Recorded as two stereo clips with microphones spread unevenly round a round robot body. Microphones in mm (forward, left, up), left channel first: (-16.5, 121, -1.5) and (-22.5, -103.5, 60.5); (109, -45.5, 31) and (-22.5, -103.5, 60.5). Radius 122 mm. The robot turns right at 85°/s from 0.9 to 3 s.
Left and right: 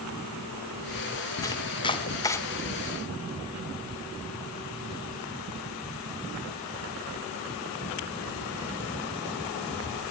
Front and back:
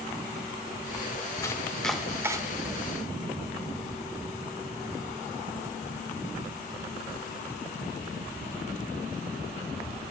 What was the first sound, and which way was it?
Chopping, 50° left.